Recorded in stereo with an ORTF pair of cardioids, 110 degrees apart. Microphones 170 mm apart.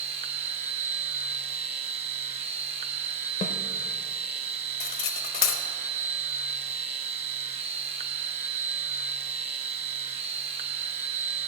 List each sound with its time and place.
0.0 s a machine running: 40° right, 0.8 m
3.4 s a snare drum: 45° left, 0.6 m
4.8 s cutlery clinking: 65° left, 0.8 m